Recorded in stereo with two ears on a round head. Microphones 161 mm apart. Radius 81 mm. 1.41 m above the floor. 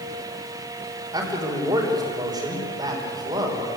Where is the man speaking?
20° right (ahead or behind), 4.5 m.